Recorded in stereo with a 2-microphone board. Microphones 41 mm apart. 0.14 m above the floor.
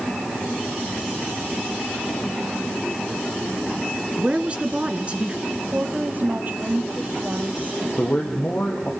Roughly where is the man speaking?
Left.